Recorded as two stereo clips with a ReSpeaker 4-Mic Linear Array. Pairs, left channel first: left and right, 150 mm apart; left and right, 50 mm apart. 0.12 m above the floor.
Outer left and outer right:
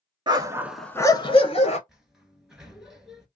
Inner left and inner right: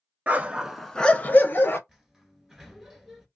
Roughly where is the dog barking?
Right.